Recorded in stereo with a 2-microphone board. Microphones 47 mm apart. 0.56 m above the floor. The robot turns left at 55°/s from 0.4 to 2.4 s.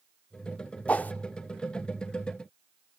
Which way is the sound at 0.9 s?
30° left (ahead or behind).